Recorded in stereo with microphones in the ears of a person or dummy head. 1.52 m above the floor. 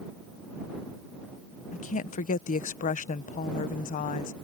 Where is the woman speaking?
45° left (ahead or behind).